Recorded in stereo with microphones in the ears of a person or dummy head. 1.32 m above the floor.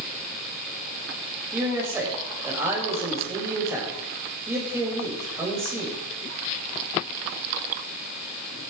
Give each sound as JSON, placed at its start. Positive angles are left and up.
{"t": 1.5, "sound": "a man speaking", "side_deg": -15, "distance_m": 5.0}